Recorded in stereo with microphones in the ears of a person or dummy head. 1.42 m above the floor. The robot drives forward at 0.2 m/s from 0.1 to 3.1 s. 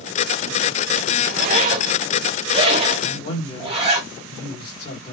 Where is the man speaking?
20° left (ahead or behind), 1.5 m.